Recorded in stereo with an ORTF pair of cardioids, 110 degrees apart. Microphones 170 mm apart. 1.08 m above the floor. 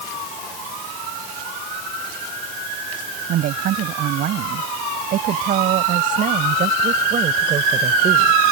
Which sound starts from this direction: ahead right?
A woman speaking, at 3.3 s.